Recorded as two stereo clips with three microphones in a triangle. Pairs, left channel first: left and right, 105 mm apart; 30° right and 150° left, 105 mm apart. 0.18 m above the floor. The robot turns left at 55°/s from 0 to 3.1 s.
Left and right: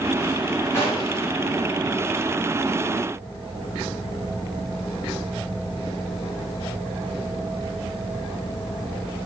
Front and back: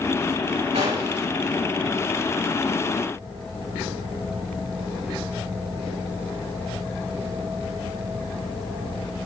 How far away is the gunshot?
About 6 m.